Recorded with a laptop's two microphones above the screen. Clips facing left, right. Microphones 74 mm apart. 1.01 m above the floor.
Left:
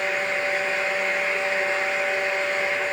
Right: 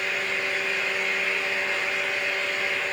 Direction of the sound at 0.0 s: 30° left (ahead or behind).